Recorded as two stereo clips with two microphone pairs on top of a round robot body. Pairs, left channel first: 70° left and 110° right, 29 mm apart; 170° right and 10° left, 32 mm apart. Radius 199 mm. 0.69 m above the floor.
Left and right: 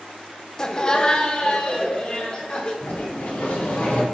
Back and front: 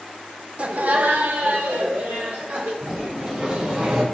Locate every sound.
0.6 s laughter: 25° left, 1.0 m; by 2.7 s 20° left, 3 m
2.8 s a sliding door: 55° left, 3 m